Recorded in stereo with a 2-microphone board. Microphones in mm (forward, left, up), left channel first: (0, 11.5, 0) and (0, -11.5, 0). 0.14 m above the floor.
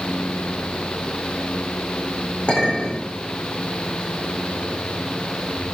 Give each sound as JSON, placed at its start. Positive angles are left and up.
{"t": 2.5, "sound": "a clink", "side_deg": 55, "distance_m": 7.0}